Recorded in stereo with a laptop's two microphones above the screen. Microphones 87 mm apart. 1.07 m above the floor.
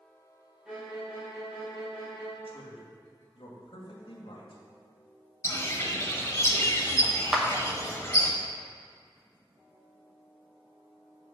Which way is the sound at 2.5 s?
75° left (ahead or behind).